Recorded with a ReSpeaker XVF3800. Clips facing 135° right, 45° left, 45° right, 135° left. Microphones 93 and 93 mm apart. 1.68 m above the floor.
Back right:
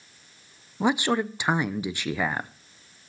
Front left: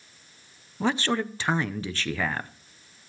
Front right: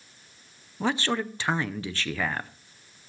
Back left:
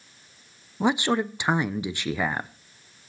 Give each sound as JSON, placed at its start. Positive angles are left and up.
{"t": 0.8, "sound": "a man speaking", "azimuth_deg": 180, "distance_m": 0.5}